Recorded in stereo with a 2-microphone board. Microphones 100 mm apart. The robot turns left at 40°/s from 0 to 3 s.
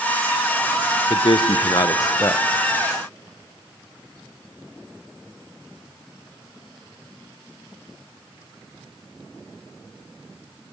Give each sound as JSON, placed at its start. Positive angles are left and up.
{"t": 1.1, "sound": "a man speaking", "azimuth_deg": 80, "distance_m": 0.6}